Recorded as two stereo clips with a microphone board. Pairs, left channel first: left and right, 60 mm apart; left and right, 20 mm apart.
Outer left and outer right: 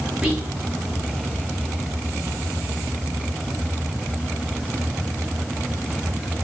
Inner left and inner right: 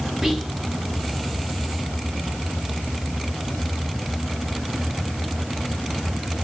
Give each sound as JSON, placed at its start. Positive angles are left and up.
{"t": 0.2, "sound": "whispering", "side_deg": -10, "distance_m": 1.0}